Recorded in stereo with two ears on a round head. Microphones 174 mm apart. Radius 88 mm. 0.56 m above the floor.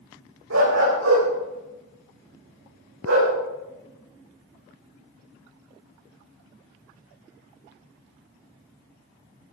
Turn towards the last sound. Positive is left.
turn(degrees=-85)